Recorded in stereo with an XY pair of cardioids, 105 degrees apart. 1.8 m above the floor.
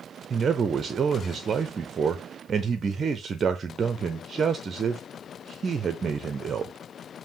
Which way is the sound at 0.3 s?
40° right.